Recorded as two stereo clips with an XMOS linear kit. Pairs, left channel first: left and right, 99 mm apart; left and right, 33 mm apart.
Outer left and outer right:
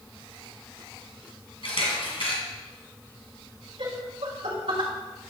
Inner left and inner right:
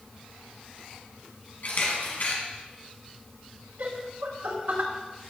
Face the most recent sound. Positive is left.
turn(degrees=-75)  # may be behind; listen again after turning